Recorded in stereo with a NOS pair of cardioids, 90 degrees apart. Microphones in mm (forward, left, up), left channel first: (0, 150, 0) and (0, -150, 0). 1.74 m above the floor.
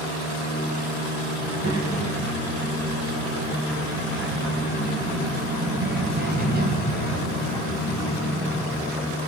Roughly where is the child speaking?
Ahead right.